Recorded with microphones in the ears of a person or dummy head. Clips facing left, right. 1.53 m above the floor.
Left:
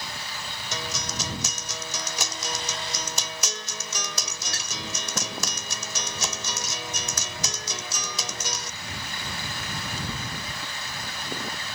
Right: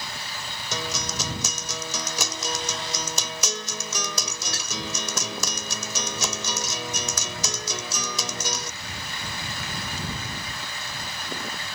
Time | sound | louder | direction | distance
0.7 | a guitar | right 3 dB | 85° right | ?